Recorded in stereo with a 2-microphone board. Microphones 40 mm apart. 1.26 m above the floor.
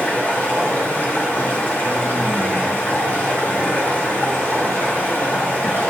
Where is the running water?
55° left (ahead or behind), 1.9 m.